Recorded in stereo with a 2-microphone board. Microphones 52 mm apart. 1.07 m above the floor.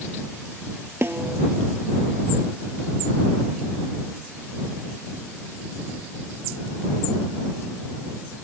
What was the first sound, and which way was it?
A snare drum, 50° right (ahead or behind).